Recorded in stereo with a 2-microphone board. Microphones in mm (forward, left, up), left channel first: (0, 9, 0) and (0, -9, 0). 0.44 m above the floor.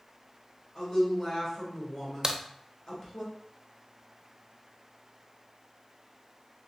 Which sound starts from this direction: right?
A crack, at 2.2 s.